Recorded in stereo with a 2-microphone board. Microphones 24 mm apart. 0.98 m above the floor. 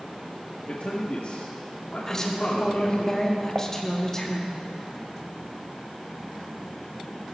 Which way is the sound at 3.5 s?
80° right.